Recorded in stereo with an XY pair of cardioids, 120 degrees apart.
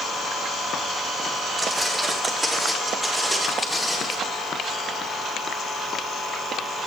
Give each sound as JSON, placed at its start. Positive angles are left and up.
{"t": 1.6, "sound": "footsteps", "azimuth_deg": -15, "distance_m": 5.5}